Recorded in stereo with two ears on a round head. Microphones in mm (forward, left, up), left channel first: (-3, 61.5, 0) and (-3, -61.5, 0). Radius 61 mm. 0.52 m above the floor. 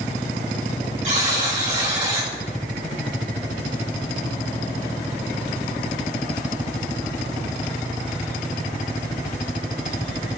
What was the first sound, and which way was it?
A buzzer, 50° right (ahead or behind).